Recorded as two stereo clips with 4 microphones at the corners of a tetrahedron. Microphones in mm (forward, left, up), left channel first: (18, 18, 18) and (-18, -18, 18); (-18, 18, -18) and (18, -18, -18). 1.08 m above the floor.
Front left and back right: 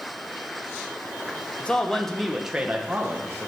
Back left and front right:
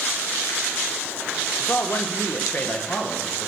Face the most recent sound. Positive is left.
turn(degrees=-170)